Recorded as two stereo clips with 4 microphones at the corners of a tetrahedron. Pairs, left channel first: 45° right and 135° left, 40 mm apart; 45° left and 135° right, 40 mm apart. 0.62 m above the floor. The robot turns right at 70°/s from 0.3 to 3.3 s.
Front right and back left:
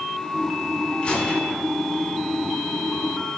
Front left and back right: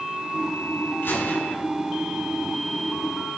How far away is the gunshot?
About 6.5 m.